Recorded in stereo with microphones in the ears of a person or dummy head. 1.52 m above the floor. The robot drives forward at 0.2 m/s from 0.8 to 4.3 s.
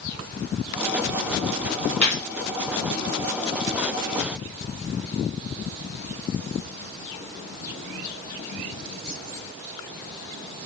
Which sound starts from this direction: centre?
A gunshot, at 2.0 s.